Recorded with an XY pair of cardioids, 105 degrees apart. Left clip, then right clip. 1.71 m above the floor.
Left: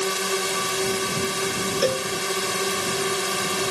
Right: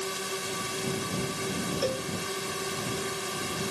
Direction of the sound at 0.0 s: 55° left.